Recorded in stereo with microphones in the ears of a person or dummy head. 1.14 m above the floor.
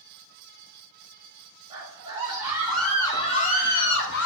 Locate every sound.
1.7 s a scream: 40° right (ahead or behind), 1.7 m; by 4.3 s 65° left (ahead or behind), 1.4 m